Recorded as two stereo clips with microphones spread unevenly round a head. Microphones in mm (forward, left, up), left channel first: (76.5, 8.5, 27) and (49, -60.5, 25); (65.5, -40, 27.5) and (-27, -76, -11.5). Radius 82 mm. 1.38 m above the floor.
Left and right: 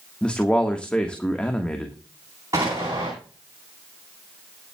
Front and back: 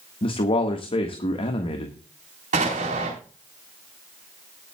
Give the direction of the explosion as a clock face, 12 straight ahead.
6 o'clock.